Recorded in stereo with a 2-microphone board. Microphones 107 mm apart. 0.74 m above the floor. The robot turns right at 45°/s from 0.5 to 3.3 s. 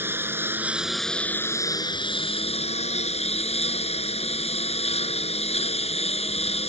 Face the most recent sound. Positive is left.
turn(degrees=105)